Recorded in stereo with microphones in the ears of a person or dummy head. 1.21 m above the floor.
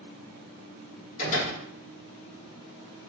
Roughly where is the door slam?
Left.